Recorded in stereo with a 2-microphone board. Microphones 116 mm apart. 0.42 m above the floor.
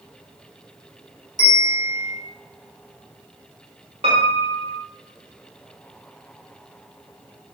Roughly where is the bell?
Left.